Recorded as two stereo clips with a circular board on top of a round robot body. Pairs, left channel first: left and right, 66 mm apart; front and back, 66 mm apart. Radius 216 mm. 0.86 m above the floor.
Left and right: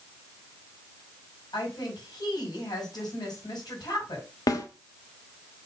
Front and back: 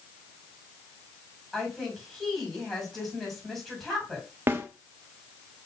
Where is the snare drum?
120° left, 0.5 m.